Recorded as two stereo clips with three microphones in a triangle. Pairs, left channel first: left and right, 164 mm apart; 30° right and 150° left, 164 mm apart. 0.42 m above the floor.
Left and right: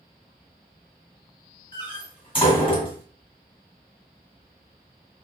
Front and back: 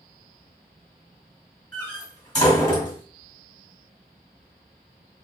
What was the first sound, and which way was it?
A door slam, 35° left.